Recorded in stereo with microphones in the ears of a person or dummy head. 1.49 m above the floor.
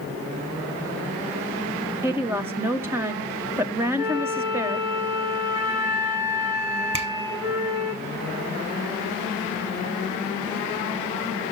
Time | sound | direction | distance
2.0 | a woman speaking | 15° right (ahead or behind) | 0.7 m
4.0 | a flute | 15° right (ahead or behind) | 2.5 m
6.9 | a finger snap | 35° right (ahead or behind) | 0.7 m